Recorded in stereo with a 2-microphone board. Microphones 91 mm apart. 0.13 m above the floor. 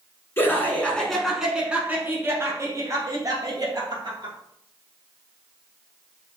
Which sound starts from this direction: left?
Laughter, at 0.4 s.